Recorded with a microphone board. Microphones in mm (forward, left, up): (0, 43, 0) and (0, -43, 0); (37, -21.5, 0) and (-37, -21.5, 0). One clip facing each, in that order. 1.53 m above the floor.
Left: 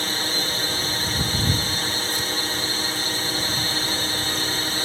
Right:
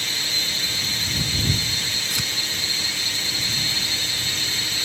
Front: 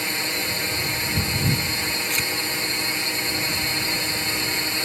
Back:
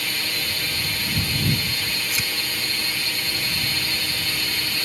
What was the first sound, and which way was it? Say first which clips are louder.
A drone: left 5 dB, front 2 dB; 60° left.